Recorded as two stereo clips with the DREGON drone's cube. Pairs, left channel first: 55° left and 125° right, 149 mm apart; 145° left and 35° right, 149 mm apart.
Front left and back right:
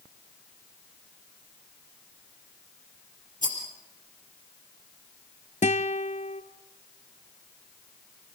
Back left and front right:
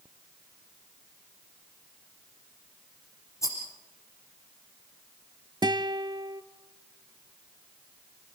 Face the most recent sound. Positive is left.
turn(degrees=25)